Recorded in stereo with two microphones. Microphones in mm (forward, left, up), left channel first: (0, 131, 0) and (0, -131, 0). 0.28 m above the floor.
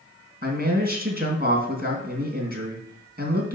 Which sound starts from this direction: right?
A man speaking, at 0.4 s.